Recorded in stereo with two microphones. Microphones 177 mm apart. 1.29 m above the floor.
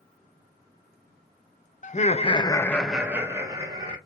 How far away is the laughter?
About 0.6 m.